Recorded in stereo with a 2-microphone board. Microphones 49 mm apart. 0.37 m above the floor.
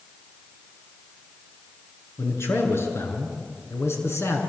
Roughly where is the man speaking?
Left.